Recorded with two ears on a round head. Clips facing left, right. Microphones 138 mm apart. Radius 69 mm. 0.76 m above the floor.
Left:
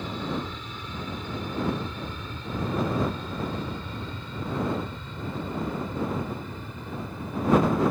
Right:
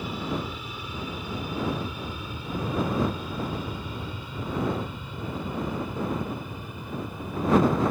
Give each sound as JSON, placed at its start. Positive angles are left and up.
{"t": 0.0, "sound": "an aircraft", "side_deg": -10}